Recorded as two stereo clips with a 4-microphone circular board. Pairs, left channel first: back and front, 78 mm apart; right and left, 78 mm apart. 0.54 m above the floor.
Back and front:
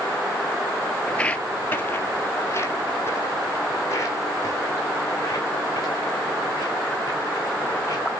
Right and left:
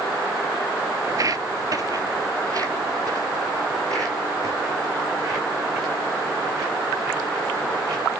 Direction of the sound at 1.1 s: 105° left.